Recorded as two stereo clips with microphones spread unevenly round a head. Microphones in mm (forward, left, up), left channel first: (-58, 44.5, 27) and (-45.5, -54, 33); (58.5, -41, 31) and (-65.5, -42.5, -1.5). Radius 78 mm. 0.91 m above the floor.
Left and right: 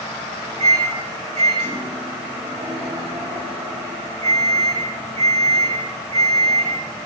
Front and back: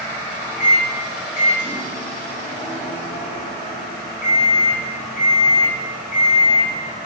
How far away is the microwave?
About 4.5 m.